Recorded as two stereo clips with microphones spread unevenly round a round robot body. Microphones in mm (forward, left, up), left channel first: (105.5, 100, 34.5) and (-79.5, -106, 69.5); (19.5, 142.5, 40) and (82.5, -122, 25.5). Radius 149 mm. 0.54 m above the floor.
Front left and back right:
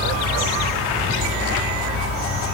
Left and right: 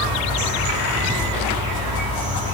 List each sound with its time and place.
0.0 s an insect: 140° right, 1.5 m